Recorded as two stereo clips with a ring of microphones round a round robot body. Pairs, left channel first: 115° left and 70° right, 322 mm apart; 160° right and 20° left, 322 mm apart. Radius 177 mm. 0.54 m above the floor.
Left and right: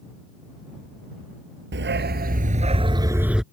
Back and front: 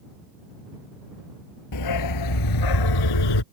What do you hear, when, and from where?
1.7 s a dog barking: 125° right; by 3.4 s 155° right